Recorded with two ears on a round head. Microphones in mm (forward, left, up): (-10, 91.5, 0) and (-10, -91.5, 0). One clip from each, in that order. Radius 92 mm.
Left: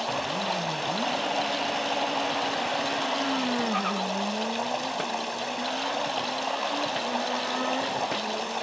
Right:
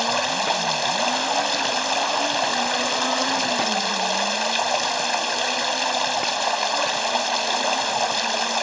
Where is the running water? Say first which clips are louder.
Right 7 dB; 60° right (ahead or behind).